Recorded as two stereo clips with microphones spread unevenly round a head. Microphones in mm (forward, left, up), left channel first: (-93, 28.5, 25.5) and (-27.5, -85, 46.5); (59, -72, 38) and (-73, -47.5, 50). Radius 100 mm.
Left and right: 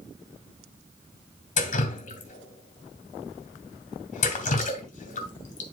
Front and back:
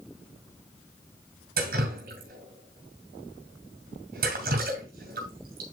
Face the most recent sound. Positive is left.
turn(degrees=140)